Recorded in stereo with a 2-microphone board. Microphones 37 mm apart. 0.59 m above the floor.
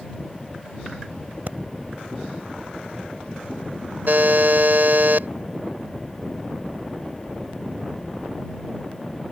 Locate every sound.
1.5 s breathing: 50° right (ahead or behind)
4.1 s a buzzer: 60° right (ahead or behind)